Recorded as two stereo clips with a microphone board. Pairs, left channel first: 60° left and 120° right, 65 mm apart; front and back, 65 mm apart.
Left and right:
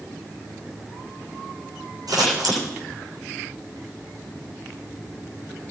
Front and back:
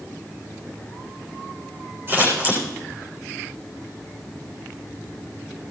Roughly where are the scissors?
Behind right.